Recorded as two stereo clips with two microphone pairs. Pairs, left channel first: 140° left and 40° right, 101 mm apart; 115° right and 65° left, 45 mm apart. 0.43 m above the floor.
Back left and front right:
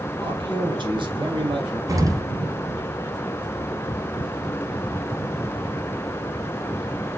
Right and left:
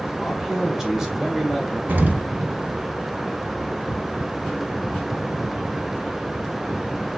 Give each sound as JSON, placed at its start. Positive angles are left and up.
{"t": 0.2, "sound": "a man speaking", "azimuth_deg": -15, "distance_m": 2.5}
{"t": 1.9, "sound": "an explosion", "azimuth_deg": 15, "distance_m": 1.2}